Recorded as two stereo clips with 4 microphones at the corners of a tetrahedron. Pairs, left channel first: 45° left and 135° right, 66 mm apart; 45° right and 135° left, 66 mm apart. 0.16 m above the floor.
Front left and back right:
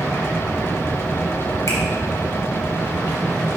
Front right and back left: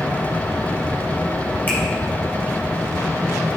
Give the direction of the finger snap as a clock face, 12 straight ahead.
12 o'clock.